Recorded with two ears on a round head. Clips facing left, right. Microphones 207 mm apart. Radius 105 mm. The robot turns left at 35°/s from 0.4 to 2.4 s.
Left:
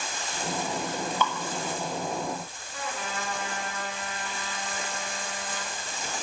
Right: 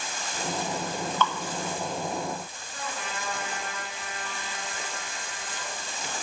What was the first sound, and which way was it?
Dripping, 10° left (ahead or behind).